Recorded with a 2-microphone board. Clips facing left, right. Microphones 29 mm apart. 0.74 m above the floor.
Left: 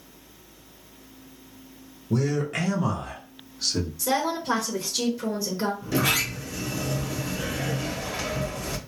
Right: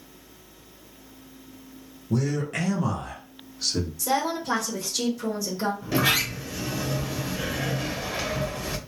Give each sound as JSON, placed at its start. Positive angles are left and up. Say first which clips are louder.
{"t": 2.1, "sound": "a man speaking", "louder": "left 1 dB", "side_deg": 15, "distance_m": 0.7}
{"t": 4.0, "sound": "a woman speaking", "louder": "even", "side_deg": 15, "distance_m": 0.7}
{"t": 5.8, "sound": "a sliding door", "louder": "right 2 dB", "side_deg": -25, "distance_m": 0.5}